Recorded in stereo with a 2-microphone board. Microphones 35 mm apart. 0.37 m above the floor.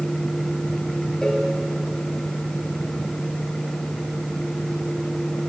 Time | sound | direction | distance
1.2 | a cowbell | 20° left (ahead or behind) | 4.5 m